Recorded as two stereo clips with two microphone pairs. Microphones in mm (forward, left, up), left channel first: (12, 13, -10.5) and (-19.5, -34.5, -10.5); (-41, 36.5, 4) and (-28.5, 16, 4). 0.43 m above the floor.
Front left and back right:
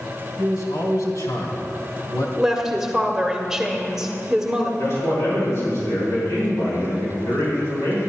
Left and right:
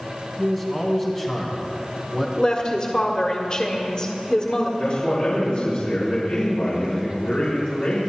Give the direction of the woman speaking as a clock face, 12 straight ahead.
7 o'clock.